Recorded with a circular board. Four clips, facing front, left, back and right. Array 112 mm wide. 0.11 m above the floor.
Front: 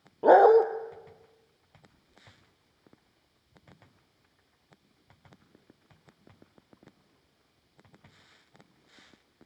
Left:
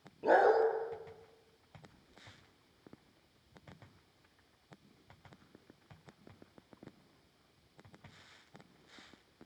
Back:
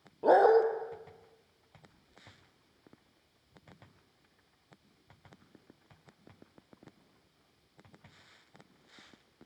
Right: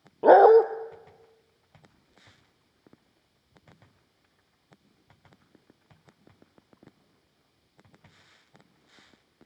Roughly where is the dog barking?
Right.